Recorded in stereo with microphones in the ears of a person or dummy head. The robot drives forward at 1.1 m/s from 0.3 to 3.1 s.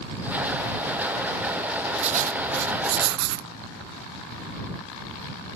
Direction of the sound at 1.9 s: 35° right (ahead or behind).